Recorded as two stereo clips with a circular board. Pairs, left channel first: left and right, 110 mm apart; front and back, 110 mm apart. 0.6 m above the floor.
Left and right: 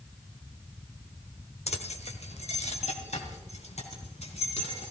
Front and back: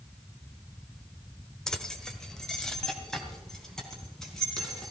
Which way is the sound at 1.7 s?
85° left.